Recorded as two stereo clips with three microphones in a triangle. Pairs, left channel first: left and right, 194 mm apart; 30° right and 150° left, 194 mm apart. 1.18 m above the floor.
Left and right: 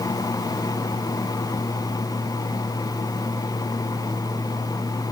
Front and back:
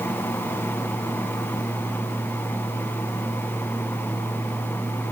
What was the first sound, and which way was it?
Only background noise.